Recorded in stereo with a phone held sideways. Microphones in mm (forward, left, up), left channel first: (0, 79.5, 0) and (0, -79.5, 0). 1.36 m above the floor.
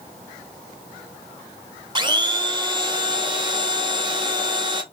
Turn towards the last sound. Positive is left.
turn(degrees=-30)  # may be behind; listen again after turning